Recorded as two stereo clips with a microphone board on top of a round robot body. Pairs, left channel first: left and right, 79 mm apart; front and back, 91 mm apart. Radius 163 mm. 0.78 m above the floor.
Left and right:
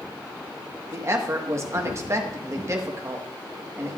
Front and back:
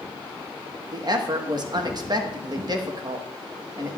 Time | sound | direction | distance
0.9 | a woman speaking | 140° right | 1.4 m